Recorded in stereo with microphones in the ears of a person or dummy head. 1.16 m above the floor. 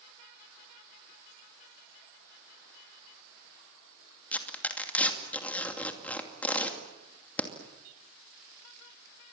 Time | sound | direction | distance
4.3 | tearing paper | 10° left (ahead or behind) | 2.5 m